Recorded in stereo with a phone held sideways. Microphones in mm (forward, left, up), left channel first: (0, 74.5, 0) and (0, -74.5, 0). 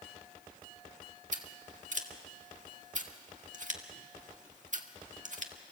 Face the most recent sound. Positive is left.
turn(degrees=-55)  # may be behind; listen again after turning